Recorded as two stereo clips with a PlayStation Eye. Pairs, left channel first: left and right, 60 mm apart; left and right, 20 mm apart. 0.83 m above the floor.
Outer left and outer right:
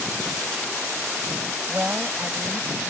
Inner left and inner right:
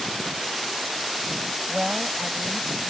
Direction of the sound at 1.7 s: 30° right (ahead or behind).